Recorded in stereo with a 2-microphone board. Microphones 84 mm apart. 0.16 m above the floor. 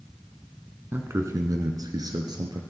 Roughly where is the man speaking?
Right.